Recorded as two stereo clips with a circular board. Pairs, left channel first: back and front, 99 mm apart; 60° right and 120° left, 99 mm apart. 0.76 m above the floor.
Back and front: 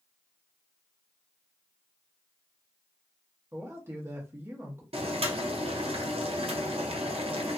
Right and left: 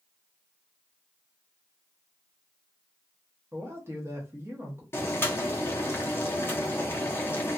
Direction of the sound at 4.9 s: 5° left.